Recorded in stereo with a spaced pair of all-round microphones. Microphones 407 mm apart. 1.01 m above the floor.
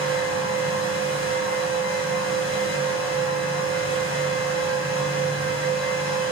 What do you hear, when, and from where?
0.0 s a fan: 30° right (ahead or behind), 2 m